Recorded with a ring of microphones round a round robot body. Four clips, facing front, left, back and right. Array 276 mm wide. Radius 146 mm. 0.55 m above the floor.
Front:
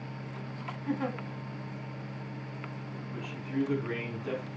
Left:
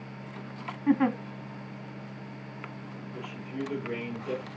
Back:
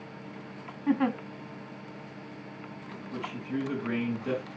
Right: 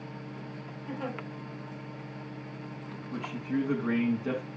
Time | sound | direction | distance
0.9 | a giggle | 120° left | 0.9 m
3.1 | a man speaking | 100° right | 6 m